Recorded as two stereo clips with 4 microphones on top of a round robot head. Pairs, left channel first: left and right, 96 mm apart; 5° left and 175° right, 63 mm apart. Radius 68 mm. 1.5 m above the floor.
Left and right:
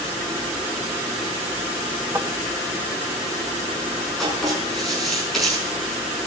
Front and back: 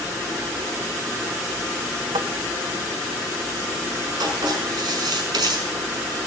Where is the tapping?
165° right, 1.0 m.